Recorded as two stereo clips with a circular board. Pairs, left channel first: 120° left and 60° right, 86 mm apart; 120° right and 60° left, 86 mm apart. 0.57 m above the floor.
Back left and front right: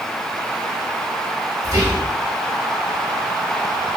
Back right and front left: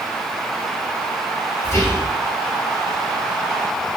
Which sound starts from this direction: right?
Whispering, at 1.6 s.